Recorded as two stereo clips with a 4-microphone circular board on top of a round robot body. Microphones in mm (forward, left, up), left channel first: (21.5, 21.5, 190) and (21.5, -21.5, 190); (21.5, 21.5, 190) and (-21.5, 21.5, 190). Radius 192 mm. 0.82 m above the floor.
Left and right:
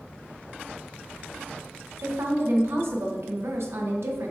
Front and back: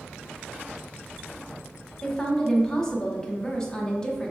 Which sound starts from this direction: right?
A woman speaking, at 2.0 s.